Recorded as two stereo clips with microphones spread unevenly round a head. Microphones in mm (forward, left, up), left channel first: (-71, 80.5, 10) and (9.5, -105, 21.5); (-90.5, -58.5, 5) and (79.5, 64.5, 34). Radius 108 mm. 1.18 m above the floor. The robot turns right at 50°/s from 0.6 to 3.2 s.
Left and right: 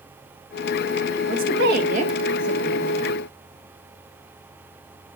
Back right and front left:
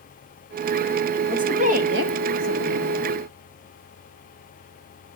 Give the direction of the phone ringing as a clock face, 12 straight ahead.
I don't hear a phone ringing.